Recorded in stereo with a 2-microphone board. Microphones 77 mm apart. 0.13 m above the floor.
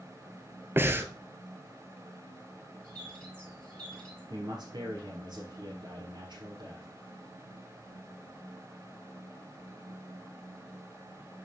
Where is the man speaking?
65° right (ahead or behind), 2.5 m.